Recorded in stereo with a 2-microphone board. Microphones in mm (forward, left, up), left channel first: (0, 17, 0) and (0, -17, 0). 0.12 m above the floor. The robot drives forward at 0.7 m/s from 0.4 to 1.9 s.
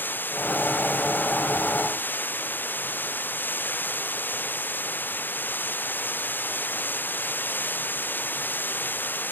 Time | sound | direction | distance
0.0 | running water | 80° left | ?